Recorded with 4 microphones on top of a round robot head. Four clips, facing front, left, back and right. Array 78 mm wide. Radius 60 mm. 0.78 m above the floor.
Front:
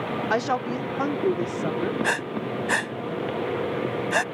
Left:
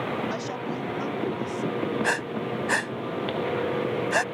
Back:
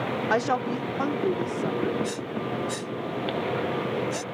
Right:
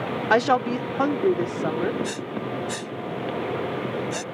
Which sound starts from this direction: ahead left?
Breathing, at 2.0 s.